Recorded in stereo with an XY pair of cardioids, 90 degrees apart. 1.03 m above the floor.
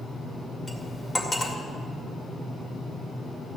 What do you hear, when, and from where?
0.7 s cutlery clinking: 30° left, 2.5 m